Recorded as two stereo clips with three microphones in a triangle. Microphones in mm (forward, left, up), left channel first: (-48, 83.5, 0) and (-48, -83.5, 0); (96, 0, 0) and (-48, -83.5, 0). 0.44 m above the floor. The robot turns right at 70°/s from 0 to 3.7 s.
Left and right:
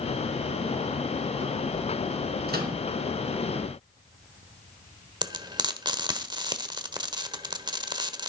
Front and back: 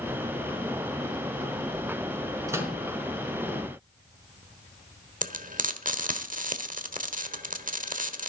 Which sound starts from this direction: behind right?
Frying, at 5.2 s.